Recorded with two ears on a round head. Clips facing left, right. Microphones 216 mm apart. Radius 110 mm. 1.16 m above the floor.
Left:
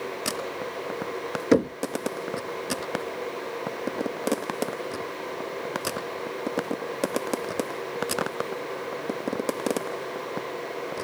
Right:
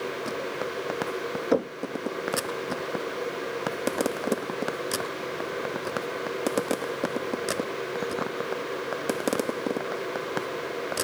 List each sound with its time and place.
1.5 s knocking: 30° left (ahead or behind)